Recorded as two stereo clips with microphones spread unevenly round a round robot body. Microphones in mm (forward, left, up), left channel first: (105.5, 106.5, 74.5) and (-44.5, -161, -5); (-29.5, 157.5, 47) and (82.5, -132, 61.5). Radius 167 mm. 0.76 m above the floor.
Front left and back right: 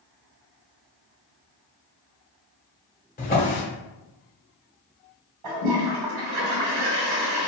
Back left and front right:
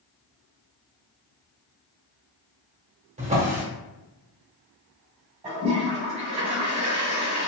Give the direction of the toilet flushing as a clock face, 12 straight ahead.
5 o'clock.